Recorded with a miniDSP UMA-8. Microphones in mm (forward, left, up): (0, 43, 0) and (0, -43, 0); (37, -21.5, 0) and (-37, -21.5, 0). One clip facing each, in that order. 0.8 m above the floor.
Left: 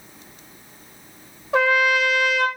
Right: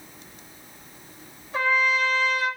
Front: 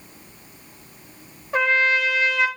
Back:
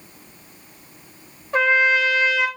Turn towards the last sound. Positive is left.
turn(degrees=85)